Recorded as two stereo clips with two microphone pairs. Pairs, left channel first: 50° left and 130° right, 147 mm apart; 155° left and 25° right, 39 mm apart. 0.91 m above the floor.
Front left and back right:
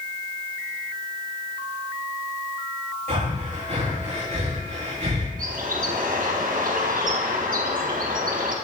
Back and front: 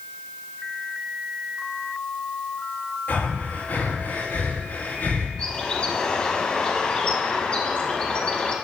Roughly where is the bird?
Behind right.